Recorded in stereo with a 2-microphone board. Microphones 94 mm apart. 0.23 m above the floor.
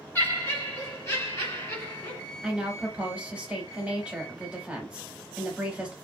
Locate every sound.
0.1 s laughter: 25° left (ahead or behind), 1.3 m; by 2.2 s 30° left (ahead or behind), 1.6 m
2.4 s a woman speaking: 10° right (ahead or behind), 1.0 m